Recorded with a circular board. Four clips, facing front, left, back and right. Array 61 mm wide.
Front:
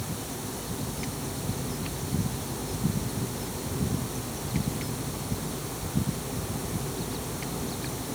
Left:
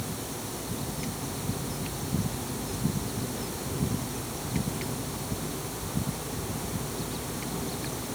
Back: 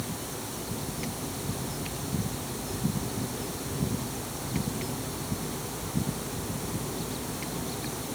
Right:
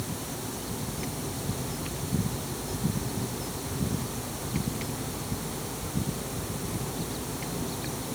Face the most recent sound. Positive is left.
No sound to turn to.